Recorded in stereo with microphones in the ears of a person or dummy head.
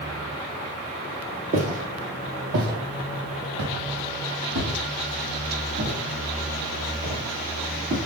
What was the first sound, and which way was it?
Footsteps, 40° right (ahead or behind).